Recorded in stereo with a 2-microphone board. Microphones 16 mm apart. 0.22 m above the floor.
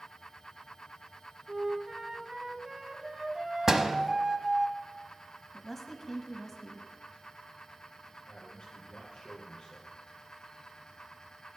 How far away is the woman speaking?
About 1.0 m.